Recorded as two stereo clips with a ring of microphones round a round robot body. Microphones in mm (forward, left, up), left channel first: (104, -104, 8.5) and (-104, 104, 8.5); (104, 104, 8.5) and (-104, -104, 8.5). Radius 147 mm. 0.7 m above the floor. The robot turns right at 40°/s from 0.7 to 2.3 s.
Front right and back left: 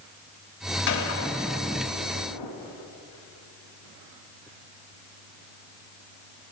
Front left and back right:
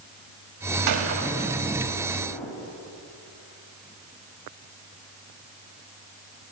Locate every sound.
0.9 s a gunshot: 100° right, 1.5 m; by 2.5 s 40° right, 1.5 m